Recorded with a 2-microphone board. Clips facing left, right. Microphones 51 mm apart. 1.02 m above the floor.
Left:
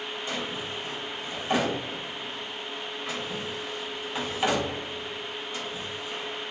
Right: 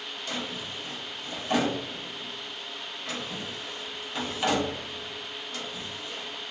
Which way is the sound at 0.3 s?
15° left (ahead or behind).